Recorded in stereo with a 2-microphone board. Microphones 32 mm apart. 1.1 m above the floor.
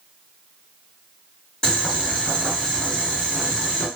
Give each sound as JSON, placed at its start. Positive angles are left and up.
{"t": 1.6, "sound": "boiling", "side_deg": 20, "distance_m": 1.9}